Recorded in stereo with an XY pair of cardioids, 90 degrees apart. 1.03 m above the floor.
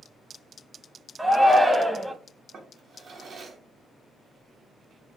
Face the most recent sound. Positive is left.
turn(degrees=-55)